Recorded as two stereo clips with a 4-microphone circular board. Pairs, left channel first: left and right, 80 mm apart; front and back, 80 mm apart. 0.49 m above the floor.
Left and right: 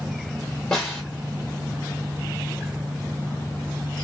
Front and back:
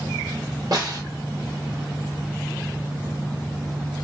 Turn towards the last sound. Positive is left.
turn(degrees=170)